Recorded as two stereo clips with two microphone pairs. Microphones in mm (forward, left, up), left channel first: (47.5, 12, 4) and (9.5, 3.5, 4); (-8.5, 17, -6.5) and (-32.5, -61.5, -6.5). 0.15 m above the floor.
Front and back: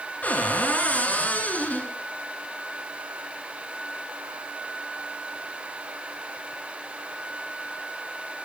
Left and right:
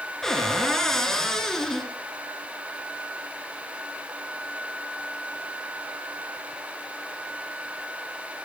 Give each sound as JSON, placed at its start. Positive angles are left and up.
{"t": 0.2, "sound": "a cupboard door", "azimuth_deg": -10, "distance_m": 2.5}